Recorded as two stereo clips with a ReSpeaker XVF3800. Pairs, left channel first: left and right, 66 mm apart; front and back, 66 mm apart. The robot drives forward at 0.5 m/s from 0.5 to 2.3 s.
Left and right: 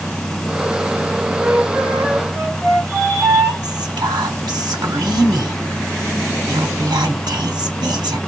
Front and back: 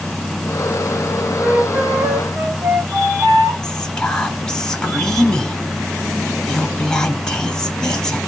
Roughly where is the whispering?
Right.